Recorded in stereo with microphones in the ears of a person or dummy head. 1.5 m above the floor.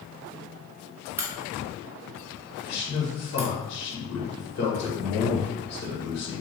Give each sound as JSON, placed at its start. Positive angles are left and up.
{"t": 1.2, "sound": "a crack", "side_deg": -15, "distance_m": 0.9}
{"t": 2.6, "sound": "a man speaking", "side_deg": 60, "distance_m": 1.5}